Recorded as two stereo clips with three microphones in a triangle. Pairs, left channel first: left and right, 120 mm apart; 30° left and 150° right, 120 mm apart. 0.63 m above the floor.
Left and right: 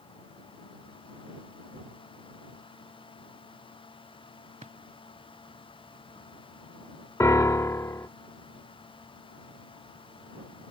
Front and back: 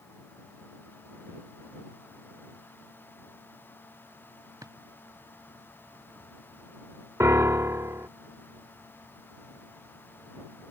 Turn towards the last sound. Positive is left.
turn(degrees=150)